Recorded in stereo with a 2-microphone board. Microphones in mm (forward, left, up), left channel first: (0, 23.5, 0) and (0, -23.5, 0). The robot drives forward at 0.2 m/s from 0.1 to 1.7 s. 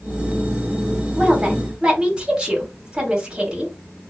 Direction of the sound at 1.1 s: 25° right (ahead or behind).